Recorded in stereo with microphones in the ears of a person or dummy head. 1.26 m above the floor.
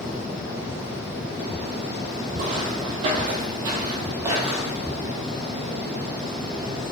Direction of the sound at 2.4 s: 45° right (ahead or behind).